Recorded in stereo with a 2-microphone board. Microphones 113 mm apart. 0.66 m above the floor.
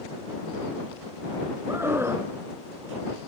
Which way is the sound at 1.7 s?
20° right (ahead or behind).